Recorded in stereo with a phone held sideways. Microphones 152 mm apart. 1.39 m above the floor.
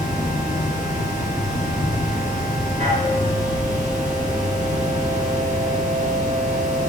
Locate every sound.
0.0 s a machine running: 55° right (ahead or behind), 6.5 m